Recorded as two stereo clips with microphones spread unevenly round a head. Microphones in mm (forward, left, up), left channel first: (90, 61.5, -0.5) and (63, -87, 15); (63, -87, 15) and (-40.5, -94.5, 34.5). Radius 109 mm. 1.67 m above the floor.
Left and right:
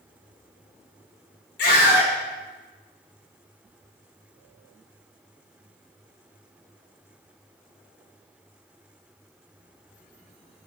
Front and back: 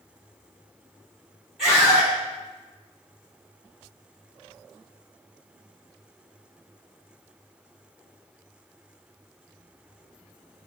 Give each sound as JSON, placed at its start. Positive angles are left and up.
{"t": 1.6, "sound": "a scream", "azimuth_deg": 95, "distance_m": 4.0}